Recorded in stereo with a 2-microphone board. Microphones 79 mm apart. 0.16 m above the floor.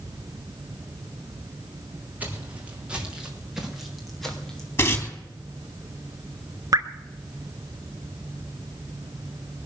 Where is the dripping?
50° right (ahead or behind), 1.3 m.